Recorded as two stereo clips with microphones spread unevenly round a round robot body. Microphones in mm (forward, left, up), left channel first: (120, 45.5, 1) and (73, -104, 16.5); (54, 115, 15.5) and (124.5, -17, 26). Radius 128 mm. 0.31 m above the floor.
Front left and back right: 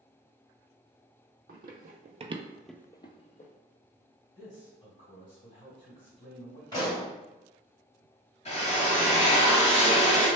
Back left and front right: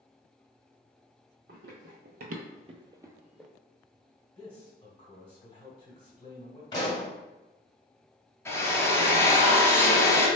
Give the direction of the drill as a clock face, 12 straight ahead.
10 o'clock.